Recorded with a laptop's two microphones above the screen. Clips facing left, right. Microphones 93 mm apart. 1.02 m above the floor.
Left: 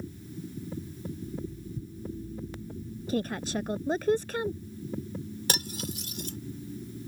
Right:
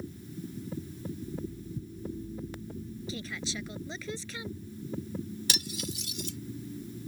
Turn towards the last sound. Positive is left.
turn(degrees=45)  # may be behind; listen again after turning